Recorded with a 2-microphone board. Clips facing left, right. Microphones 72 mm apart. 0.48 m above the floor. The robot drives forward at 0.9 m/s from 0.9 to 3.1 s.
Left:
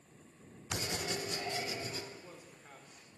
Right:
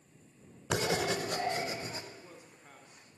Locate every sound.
0.7 s writing: 80° right, 0.6 m; by 2.0 s 30° right (ahead or behind), 1.2 m
2.1 s a man speaking: centre (ahead or behind), 1.1 m